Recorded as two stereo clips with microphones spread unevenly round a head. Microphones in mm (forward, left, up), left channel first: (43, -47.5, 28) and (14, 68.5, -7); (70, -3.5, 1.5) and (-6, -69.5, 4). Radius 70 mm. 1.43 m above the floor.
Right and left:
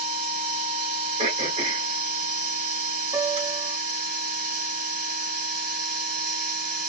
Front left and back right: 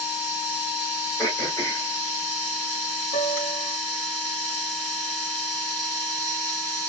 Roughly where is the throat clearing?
Left.